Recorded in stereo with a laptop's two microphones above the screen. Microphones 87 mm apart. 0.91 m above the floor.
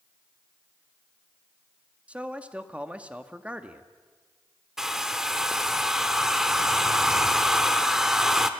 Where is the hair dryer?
5° right (ahead or behind), 1.0 m.